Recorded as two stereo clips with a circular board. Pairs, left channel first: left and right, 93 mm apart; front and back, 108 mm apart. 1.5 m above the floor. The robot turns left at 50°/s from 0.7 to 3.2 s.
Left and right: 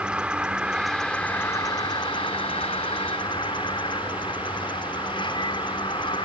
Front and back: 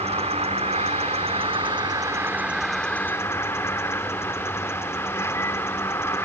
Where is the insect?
170° right; by 6.2 s 65° left.